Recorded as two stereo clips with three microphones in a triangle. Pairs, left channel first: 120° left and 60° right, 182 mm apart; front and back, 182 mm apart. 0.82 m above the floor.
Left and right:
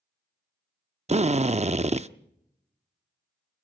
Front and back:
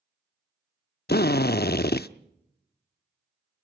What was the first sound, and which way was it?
A drill, 10° right.